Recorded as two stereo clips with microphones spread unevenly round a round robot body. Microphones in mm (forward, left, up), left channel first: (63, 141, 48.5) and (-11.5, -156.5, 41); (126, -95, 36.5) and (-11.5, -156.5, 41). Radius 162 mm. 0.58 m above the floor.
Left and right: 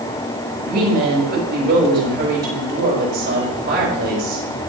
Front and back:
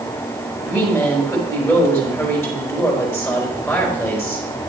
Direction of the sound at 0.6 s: 50° right.